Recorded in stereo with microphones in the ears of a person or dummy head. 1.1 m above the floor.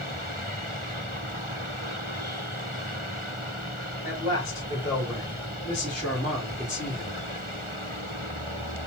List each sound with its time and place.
4.0 s a man speaking: 30° left (ahead or behind), 2.5 m; by 7.2 s 10° right (ahead or behind), 1.8 m